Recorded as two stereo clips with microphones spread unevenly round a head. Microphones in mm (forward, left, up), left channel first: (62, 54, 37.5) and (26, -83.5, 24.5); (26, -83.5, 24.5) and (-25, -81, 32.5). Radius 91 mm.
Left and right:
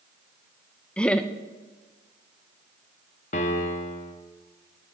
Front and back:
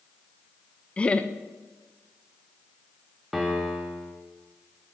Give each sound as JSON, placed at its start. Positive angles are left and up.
{"t": 1.0, "sound": "laughter", "azimuth_deg": -10, "distance_m": 0.5}
{"t": 3.3, "sound": "a piano", "azimuth_deg": 95, "distance_m": 1.0}